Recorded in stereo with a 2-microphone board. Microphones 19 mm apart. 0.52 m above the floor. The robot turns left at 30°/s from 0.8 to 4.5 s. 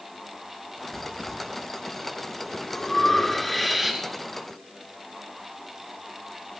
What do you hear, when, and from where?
0.9 s breathing: 75° left (ahead or behind), 2.0 m; by 4.0 s 15° right (ahead or behind), 2.0 m